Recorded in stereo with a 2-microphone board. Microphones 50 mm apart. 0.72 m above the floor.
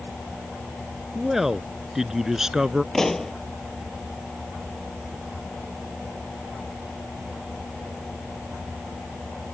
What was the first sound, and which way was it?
A man speaking, 5° right (ahead or behind).